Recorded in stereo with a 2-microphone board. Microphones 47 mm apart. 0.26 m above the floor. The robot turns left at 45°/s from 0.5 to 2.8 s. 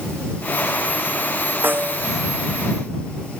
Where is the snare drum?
45° right (ahead or behind); by 2.1 s 25° right (ahead or behind).